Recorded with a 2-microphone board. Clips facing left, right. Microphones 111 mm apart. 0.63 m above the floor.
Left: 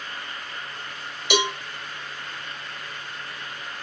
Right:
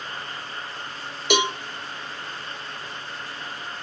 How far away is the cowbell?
About 1.2 m.